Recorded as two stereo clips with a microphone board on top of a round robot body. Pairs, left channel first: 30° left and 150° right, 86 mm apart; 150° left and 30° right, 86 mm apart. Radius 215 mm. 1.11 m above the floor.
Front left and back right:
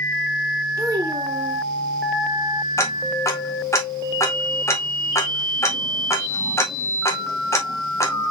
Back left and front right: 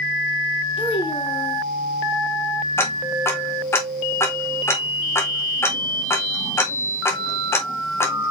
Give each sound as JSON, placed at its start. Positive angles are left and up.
{"t": 0.8, "sound": "a child speaking", "azimuth_deg": 160, "distance_m": 2.0}
{"t": 2.8, "sound": "ticking", "azimuth_deg": 90, "distance_m": 1.1}